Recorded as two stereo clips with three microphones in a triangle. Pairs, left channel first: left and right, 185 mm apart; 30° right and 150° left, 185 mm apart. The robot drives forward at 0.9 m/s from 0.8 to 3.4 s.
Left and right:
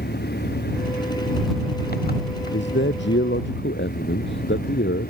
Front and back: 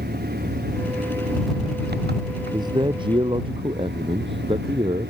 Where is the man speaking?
80° left; by 5.1 s 90° left.